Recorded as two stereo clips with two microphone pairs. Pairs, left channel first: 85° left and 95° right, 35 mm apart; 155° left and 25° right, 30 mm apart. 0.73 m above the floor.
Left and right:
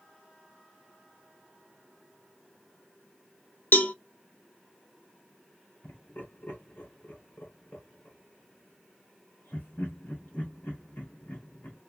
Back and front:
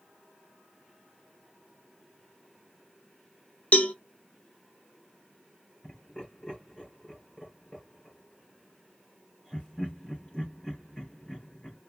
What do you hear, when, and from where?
3.7 s a cowbell: 115° left, 0.7 m
5.8 s laughter: 95° left, 3.5 m